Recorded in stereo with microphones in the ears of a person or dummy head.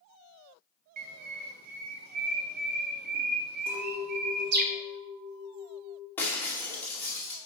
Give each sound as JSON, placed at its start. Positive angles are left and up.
{"t": 1.0, "sound": "a bird", "side_deg": -55, "distance_m": 0.8}
{"t": 3.7, "sound": "a clink", "side_deg": -30, "distance_m": 1.9}
{"t": 6.2, "sound": "breaking glass", "side_deg": 10, "distance_m": 2.5}